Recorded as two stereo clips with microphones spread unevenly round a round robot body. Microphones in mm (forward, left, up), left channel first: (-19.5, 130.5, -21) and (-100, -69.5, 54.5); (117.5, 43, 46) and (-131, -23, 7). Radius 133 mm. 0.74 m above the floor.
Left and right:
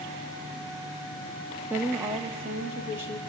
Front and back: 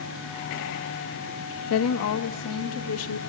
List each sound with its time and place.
1.7 s a woman speaking: 15° right, 0.8 m; by 3.2 s 25° right, 1.6 m